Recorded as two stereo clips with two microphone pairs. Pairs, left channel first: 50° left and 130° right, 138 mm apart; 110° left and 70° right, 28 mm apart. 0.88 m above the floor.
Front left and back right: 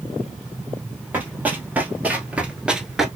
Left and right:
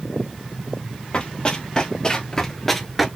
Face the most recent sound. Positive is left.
turn(degrees=-90)